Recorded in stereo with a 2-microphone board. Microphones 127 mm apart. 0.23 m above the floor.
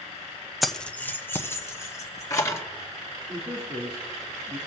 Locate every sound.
0.6 s keys jangling: centre (ahead or behind), 0.7 m; by 2.6 s 25° left (ahead or behind), 3 m
3.3 s a man speaking: 40° right (ahead or behind), 3.5 m